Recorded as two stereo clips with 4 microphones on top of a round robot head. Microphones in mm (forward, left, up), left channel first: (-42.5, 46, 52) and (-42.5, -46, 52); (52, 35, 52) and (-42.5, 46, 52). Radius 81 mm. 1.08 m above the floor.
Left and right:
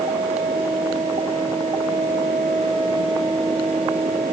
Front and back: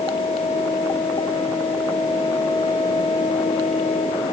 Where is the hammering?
I don't hear hammering.